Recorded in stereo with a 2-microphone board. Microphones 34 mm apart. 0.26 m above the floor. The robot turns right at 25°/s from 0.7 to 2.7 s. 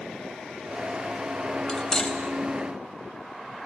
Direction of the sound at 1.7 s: 20° left (ahead or behind).